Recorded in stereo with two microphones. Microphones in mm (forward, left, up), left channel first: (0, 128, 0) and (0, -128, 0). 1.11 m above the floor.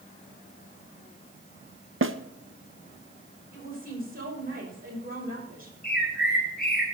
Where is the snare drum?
50° right (ahead or behind), 0.8 m.